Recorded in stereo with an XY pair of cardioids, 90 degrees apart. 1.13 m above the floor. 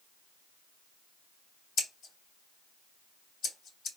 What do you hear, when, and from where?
1.8 s scissors: 70° left, 3 m